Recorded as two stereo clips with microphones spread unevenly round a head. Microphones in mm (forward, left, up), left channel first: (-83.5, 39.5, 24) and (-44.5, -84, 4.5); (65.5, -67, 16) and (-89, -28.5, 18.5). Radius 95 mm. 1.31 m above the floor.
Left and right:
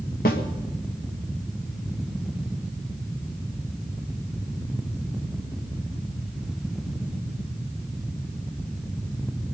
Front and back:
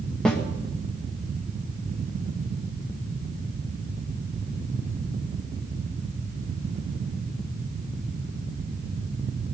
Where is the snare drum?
70° left, 1.6 m.